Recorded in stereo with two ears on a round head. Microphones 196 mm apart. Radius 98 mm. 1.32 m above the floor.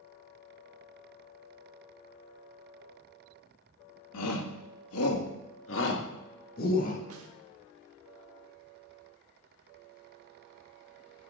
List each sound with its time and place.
4.1 s a shout: 85° left, 2.0 m; by 7.0 s 35° left (ahead or behind), 1.7 m
7.1 s a snare drum: 75° right (ahead or behind), 1.4 m